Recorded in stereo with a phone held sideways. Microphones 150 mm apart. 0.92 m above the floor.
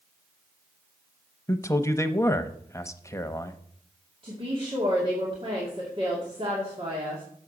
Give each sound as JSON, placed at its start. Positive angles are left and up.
{"t": 1.5, "sound": "a man speaking", "side_deg": 20, "distance_m": 0.7}
{"t": 4.2, "sound": "a woman speaking", "side_deg": -35, "distance_m": 2.5}